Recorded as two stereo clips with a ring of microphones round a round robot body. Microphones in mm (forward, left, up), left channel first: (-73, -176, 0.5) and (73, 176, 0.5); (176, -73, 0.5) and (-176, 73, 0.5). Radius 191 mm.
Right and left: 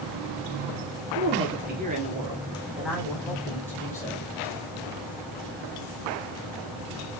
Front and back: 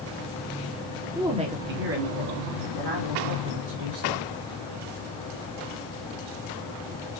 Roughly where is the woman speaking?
Left.